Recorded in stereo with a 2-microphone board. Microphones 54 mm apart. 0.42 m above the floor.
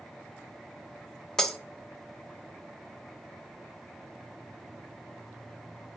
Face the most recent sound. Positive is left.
turn(degrees=10)  # may be behind; listen again after turning